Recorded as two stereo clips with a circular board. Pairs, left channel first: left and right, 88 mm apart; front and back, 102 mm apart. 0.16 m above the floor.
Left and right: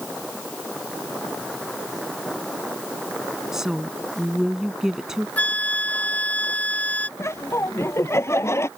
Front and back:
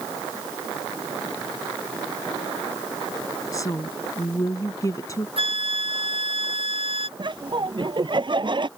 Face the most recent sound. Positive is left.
turn(degrees=145)